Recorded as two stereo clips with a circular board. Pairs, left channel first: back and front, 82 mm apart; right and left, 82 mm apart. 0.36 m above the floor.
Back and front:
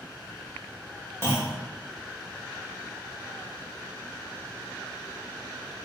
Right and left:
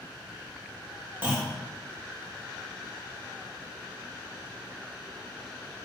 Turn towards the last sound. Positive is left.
turn(degrees=140)